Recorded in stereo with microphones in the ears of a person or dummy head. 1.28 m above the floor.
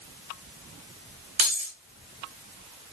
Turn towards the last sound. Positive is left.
turn(degrees=-40)  # may be behind; listen again after turning